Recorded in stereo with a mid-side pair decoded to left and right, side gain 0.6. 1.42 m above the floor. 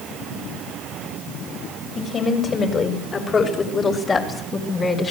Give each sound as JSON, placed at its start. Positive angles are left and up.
{"t": 1.9, "sound": "a woman speaking", "azimuth_deg": 35, "distance_m": 6.0}